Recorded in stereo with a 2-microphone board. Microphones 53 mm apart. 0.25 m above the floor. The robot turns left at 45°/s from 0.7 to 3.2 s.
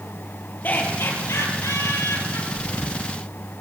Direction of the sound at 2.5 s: 60° left (ahead or behind).